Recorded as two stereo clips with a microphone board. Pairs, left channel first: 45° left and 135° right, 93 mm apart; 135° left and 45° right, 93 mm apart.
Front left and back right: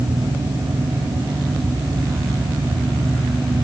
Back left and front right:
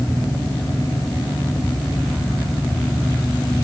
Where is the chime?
I don't hear a chime.